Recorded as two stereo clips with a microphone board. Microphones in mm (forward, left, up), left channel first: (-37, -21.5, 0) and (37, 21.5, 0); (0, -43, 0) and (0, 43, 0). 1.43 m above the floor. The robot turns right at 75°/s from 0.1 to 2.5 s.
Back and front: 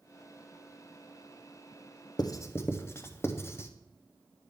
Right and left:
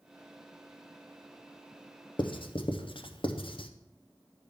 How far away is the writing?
About 0.6 m.